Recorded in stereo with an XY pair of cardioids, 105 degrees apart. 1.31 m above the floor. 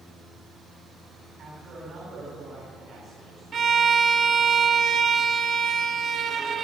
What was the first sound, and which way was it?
A man speaking, 65° right.